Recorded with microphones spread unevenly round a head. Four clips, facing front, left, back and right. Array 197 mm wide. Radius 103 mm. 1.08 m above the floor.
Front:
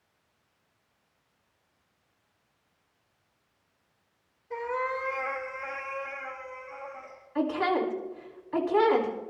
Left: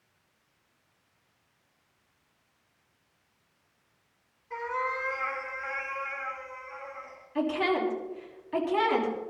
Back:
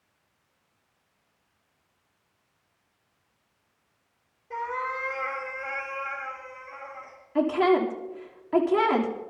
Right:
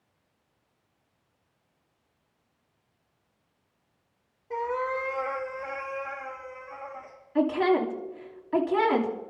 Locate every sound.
4.5 s a cat meowing: 110° right, 1.3 m; by 7.2 s 105° right, 5 m
7.3 s a woman speaking: 150° right, 3 m